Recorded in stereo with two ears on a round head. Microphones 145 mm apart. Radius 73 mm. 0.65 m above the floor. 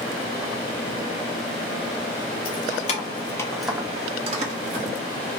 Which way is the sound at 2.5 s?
55° left (ahead or behind).